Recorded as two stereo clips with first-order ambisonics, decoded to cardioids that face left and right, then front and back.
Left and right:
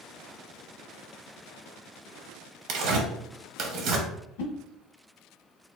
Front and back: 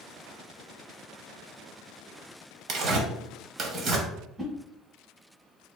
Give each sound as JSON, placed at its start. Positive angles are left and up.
{"t": 2.7, "sound": "tearing paper", "azimuth_deg": -130, "distance_m": 0.8}
{"t": 4.4, "sound": "a whoosh", "azimuth_deg": 100, "distance_m": 1.2}